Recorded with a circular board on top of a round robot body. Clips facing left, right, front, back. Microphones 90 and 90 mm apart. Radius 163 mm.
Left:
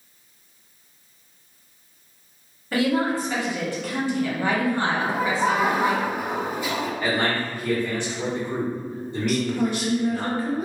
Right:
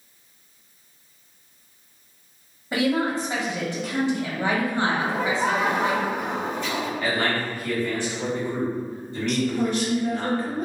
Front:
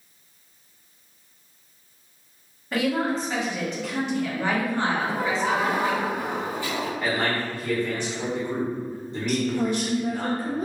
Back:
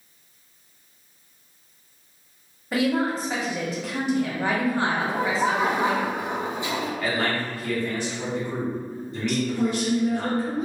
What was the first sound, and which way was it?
A woman speaking, 110° right.